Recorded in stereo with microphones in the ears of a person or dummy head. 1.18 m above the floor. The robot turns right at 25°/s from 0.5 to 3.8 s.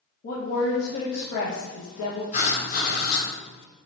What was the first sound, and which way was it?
A woman speaking, 40° left.